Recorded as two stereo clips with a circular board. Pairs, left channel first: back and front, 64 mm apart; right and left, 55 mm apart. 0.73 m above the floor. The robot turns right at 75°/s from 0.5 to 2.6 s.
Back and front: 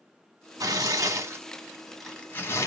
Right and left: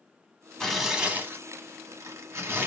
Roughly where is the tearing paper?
Ahead.